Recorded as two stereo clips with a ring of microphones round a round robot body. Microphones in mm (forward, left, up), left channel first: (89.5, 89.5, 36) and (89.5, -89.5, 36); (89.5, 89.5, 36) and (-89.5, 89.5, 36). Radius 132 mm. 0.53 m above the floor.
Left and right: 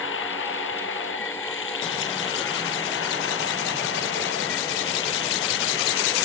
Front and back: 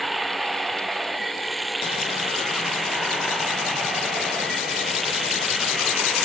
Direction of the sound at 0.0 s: 90° left.